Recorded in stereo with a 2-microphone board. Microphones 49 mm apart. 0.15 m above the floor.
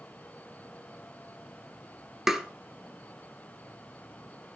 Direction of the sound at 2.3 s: 10° right (ahead or behind).